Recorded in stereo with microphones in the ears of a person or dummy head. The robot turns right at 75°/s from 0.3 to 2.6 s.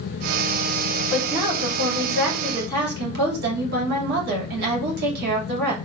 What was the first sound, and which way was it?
A woman speaking, straight behind.